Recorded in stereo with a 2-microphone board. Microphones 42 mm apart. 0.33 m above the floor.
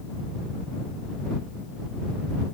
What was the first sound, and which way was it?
Only background noise.